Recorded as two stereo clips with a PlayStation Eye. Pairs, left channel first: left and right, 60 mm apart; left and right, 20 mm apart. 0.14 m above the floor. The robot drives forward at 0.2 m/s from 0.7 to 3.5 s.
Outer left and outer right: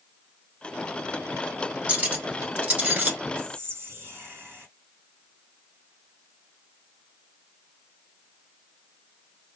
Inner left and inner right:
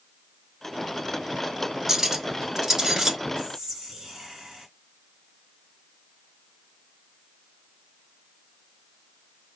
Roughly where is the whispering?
Right.